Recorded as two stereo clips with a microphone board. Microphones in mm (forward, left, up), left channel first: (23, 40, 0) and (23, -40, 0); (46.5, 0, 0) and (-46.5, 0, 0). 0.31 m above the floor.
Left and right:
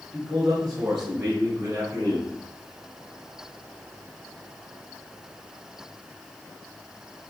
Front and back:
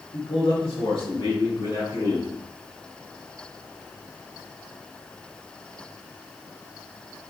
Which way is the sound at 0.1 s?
20° right.